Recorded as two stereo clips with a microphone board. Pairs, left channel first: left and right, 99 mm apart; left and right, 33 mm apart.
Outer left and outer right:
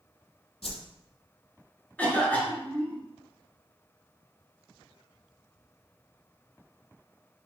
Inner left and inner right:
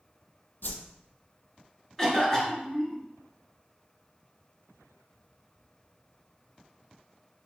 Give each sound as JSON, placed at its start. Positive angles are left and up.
{"t": 0.6, "sound": "a whoosh", "side_deg": 75, "distance_m": 0.6}
{"t": 2.0, "sound": "a cough", "side_deg": 15, "distance_m": 1.8}